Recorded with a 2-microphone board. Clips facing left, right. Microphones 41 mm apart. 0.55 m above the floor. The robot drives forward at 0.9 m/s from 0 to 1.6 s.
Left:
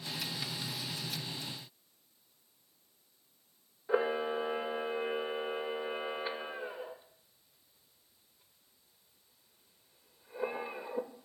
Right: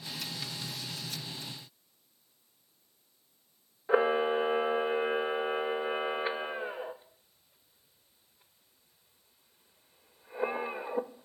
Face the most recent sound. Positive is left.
turn(degrees=-30)  # may be behind; listen again after turning